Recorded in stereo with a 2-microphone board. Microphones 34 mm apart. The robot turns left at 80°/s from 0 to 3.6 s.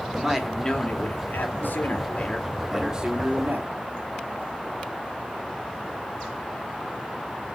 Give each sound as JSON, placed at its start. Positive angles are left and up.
{"t": 0.1, "sound": "a man speaking", "azimuth_deg": -155, "distance_m": 2.5}